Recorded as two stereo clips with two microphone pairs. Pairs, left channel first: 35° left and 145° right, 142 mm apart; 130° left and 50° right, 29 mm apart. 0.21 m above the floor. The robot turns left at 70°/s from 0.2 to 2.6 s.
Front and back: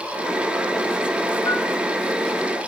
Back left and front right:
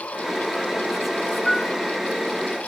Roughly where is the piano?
Left.